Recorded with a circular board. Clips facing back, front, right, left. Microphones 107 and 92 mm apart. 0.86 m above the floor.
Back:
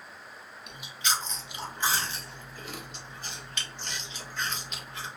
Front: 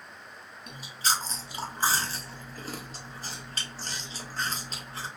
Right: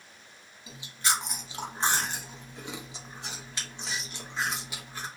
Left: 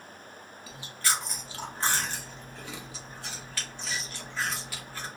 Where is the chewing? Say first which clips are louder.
Front 2 dB, right 1 dB; 30° right, 0.6 m.